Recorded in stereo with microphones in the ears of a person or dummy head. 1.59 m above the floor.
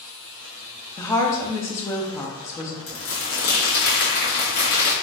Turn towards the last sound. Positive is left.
turn(degrees=45)  # may be behind; listen again after turning